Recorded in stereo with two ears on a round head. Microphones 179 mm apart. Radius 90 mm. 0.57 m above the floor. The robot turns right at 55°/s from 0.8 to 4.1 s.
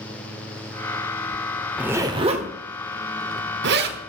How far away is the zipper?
About 1.3 m.